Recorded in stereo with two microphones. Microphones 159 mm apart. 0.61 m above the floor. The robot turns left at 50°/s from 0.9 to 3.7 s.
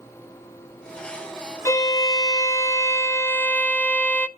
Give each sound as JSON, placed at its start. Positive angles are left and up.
{"t": 1.6, "sound": "a violin", "side_deg": 20, "distance_m": 0.6}